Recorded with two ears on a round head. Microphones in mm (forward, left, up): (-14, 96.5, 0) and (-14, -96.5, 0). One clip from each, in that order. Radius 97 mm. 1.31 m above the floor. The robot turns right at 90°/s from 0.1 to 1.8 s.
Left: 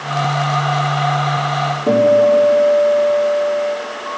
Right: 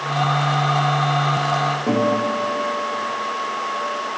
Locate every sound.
1.9 s a guitar: 60° left (ahead or behind), 2.5 m